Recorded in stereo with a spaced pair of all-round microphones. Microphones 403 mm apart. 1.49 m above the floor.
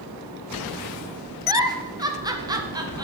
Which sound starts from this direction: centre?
A giggle, at 1.5 s.